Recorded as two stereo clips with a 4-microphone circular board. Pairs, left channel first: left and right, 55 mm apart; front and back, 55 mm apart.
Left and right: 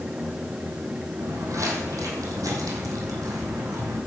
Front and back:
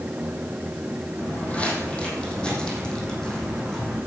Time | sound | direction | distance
1.2 | footsteps | 65° right | 3.5 m